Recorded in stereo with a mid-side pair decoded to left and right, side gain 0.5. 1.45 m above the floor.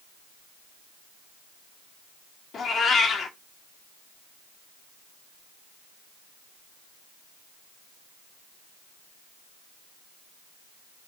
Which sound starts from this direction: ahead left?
A cat meowing, at 2.5 s.